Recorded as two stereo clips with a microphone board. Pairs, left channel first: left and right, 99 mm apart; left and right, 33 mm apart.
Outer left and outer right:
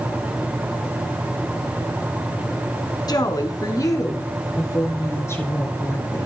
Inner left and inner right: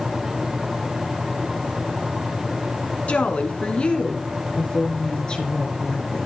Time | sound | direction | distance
3.1 | a woman speaking | 45° left (ahead or behind) | 2.5 m